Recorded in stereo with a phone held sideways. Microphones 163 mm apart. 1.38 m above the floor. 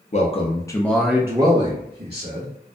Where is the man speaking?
45° left (ahead or behind), 0.7 m; by 2.5 s 50° right (ahead or behind), 1.0 m.